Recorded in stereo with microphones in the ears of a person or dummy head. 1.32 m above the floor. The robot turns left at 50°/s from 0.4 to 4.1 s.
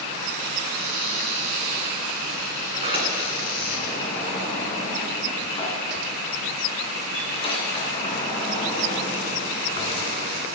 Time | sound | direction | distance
0.7 | a cupboard door | 65° right | 4.5 m
2.7 | a sliding door | 145° right | 2.5 m